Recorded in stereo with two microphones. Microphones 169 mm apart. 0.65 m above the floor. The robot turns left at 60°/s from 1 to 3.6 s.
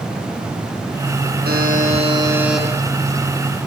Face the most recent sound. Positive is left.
turn(degrees=120)